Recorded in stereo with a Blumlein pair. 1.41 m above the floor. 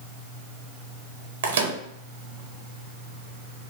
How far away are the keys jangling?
I don't hear keys jangling.